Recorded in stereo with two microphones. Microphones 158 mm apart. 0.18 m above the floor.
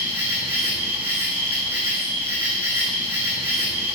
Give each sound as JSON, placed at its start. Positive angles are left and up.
{"t": 0.0, "sound": "an insect", "side_deg": -15, "distance_m": 1.5}